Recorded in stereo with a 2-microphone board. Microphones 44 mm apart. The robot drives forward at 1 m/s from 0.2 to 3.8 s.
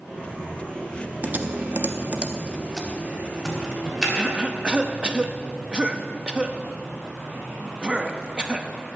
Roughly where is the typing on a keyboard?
Right.